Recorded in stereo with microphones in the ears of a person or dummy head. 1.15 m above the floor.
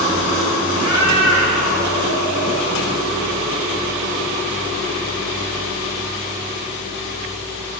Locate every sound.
0.7 s a cat meowing: 65° left (ahead or behind), 3 m; by 2.7 s 80° left, 2.5 m